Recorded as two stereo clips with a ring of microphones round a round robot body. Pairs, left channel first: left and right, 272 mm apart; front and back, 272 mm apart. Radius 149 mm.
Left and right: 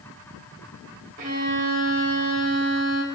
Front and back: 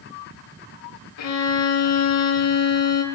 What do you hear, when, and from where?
1.2 s a violin: 25° right, 1.2 m